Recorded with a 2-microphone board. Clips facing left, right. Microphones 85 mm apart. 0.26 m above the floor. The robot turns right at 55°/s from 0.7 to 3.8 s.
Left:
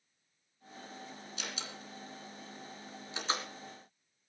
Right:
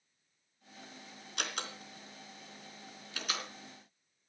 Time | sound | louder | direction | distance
1.4 | a door slam | right 6 dB | 65° right (ahead or behind) | 2.5 m